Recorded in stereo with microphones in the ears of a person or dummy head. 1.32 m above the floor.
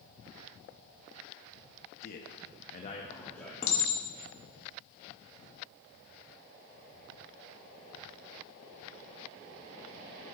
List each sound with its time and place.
2.0 s a man speaking: 50° left (ahead or behind), 0.8 m; by 3.5 s 5° left (ahead or behind), 1.3 m
3.6 s a clink: 45° left (ahead or behind), 1.7 m